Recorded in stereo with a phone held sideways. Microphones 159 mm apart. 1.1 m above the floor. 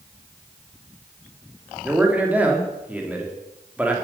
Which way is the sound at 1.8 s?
10° right (ahead or behind).